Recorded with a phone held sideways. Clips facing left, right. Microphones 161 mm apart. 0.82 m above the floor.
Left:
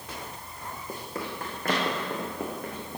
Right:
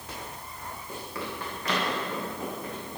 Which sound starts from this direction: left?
Running footsteps, at 0.9 s.